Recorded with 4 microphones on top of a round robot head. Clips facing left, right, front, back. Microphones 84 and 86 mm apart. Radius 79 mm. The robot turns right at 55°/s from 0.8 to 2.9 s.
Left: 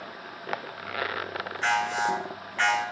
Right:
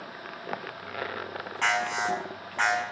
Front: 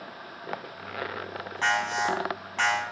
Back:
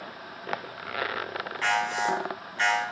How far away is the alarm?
About 9 m.